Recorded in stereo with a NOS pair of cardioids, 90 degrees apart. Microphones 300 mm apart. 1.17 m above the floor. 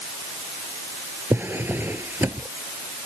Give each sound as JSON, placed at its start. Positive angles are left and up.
{"t": 1.3, "sound": "a drawer", "azimuth_deg": -5}